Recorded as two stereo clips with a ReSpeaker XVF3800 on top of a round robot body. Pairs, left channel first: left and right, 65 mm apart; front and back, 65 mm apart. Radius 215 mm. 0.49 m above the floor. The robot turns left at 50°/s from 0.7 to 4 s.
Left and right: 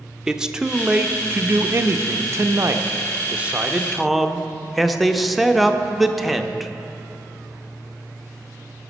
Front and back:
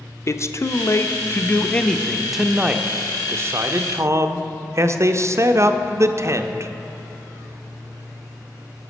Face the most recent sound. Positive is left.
turn(degrees=180)